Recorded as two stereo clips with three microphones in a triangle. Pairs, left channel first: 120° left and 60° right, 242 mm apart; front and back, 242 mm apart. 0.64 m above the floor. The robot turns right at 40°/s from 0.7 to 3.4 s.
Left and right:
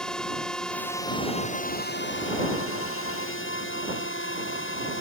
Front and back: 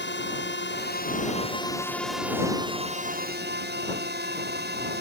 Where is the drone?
35° left; by 5.0 s 140° left.